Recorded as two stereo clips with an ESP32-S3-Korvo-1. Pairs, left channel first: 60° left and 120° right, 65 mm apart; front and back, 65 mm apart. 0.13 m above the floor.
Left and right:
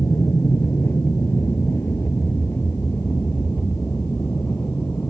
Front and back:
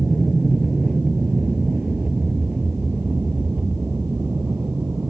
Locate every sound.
0.0 s an aircraft: 95° left; by 5.1 s 125° left